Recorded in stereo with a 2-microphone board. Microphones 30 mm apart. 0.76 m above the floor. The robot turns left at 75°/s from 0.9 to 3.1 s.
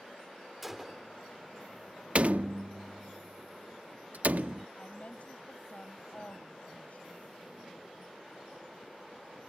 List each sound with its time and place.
0.6 s a gunshot: 5° right (ahead or behind); by 1.1 s 10° left (ahead or behind)
2.1 s a door slam: 45° right (ahead or behind); by 4.7 s 60° right (ahead or behind)
4.8 s a woman speaking: 50° left (ahead or behind)